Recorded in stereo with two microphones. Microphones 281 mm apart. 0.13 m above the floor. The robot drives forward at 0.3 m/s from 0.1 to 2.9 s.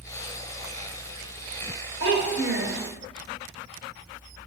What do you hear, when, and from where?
2.0 s a child speaking: 50° right (ahead or behind), 1.1 m